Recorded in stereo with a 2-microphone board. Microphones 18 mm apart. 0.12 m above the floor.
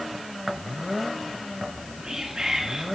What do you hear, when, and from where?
1.6 s whispering: 40° right (ahead or behind), 1.9 m